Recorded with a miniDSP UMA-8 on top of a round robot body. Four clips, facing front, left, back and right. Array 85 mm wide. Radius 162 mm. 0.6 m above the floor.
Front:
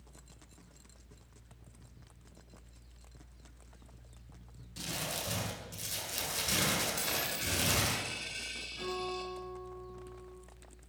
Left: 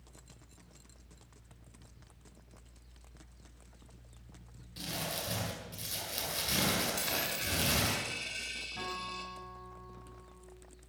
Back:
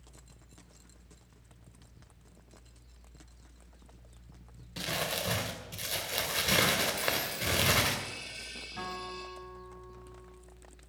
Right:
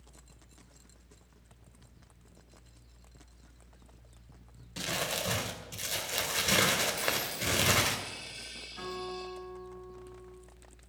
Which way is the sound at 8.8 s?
155° left.